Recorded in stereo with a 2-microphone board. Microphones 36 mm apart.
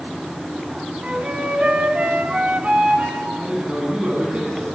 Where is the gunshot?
I don't hear a gunshot.